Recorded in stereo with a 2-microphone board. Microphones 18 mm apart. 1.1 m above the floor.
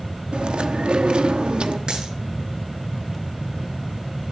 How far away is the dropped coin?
About 7.5 m.